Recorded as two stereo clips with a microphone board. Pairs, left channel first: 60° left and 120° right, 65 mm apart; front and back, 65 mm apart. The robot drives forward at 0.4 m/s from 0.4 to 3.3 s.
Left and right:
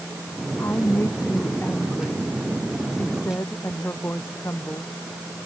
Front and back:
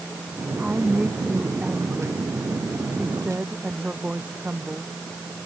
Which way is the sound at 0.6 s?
105° left.